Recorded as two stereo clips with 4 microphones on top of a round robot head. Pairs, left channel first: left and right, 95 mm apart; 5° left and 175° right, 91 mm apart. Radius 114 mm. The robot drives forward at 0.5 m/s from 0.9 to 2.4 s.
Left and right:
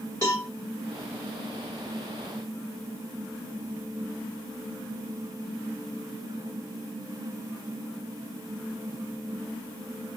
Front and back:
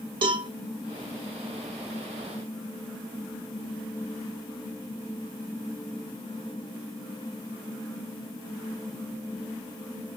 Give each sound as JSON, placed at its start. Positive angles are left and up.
{"t": 0.2, "sound": "a cowbell", "azimuth_deg": 160, "distance_m": 1.6}